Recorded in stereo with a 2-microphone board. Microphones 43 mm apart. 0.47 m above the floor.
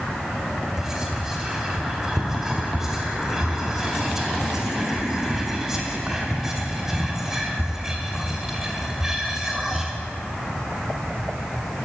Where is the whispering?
10° right (ahead or behind), 0.9 m.